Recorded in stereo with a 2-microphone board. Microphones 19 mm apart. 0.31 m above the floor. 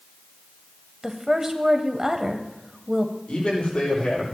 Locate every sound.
1.0 s a woman speaking: 30° right (ahead or behind), 1.2 m
3.3 s a man speaking: 65° left (ahead or behind), 7.5 m